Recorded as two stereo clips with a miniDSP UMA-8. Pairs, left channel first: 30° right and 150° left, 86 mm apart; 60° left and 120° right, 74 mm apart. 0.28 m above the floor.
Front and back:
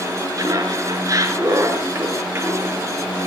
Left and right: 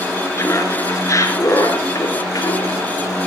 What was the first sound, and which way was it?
Laughter, 110° left.